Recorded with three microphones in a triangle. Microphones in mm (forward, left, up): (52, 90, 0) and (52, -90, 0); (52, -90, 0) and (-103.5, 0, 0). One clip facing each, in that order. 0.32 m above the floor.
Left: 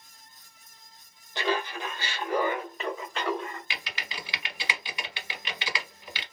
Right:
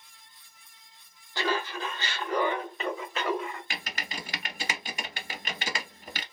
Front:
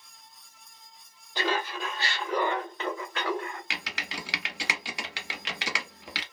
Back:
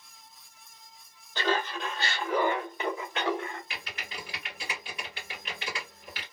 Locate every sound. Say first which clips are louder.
1.4 s laughter: left 1 dB, back 1 dB; 35° left, 1.3 m; by 3.6 s 165° right, 1.3 m
3.7 s typing on a keyboard: right 1 dB, front 3 dB; 40° right, 0.7 m